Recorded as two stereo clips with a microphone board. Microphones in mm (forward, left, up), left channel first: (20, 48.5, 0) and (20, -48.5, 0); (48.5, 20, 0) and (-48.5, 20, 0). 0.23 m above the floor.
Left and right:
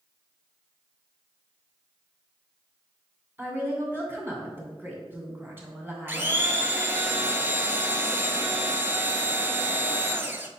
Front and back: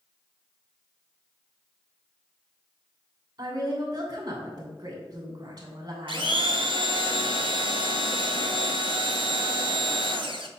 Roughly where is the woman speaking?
Behind right.